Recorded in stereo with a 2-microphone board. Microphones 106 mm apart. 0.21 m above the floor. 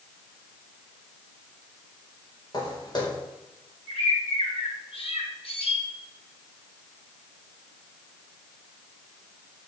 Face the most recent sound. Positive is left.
turn(degrees=75)  # may be behind; listen again after turning